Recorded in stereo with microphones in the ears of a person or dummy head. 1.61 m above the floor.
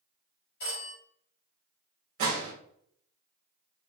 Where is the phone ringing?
60° left (ahead or behind), 1.8 m.